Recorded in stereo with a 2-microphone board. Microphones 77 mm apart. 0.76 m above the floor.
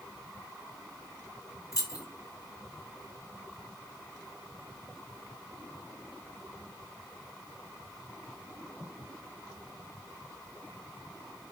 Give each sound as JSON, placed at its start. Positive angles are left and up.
{"t": 1.7, "sound": "keys jangling", "side_deg": 45, "distance_m": 0.8}